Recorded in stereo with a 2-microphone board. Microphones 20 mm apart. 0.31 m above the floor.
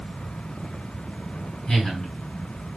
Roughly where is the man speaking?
Left.